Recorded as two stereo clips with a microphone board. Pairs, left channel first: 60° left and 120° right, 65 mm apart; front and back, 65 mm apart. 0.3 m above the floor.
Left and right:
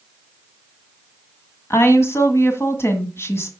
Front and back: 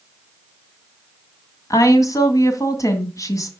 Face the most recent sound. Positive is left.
turn(degrees=20)